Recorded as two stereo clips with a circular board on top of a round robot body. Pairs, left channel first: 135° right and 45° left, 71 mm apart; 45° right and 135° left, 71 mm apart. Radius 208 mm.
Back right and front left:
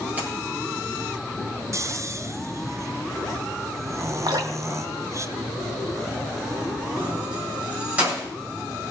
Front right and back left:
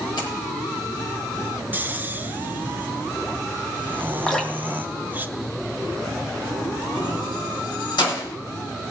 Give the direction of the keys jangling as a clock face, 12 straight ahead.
1 o'clock.